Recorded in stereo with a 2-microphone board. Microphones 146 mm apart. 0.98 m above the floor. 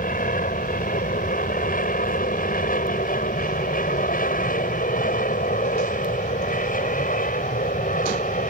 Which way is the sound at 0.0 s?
75° left (ahead or behind).